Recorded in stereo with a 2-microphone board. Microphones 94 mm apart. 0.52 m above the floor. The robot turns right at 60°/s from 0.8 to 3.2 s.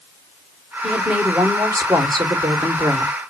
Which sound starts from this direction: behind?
A woman speaking, at 0.8 s.